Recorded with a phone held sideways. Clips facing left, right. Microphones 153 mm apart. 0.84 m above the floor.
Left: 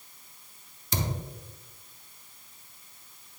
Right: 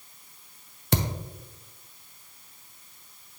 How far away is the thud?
About 0.7 m.